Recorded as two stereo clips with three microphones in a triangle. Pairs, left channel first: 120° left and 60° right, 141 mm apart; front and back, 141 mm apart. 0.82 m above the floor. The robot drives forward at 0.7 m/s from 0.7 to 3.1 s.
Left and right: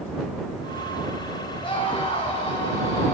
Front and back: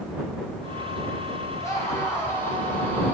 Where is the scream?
70° left, 8 m; by 3.1 s 75° left, 8 m.